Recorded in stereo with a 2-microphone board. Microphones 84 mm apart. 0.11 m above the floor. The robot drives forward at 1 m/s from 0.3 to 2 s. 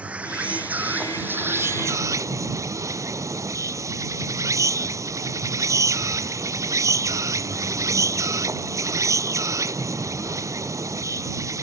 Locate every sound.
0.0 s an insect: 15° right (ahead or behind); by 11.6 s 40° right (ahead or behind)